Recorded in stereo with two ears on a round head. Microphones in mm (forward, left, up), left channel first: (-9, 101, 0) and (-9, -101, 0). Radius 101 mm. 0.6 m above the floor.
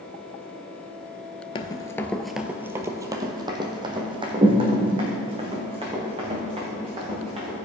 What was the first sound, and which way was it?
Running footsteps, 20° left (ahead or behind).